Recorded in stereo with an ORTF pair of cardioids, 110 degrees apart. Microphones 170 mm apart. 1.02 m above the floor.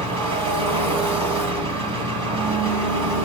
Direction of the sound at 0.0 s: 40° right.